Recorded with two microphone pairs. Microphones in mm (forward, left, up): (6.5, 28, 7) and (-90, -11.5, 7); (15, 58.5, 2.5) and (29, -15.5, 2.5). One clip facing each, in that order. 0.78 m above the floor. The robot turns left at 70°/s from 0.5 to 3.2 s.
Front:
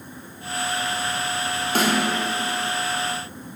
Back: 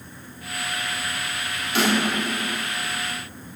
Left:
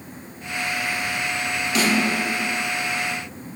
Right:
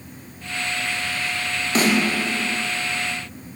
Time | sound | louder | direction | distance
1.8 | a snare drum | even, right 2 dB | 25° right | 0.5 m